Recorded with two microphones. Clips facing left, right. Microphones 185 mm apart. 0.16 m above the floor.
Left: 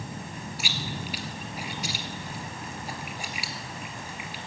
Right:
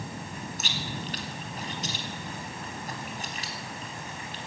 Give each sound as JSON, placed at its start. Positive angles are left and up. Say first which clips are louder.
{"t": 0.6, "sound": "chewing", "louder": "left 2 dB", "side_deg": 10, "distance_m": 1.5}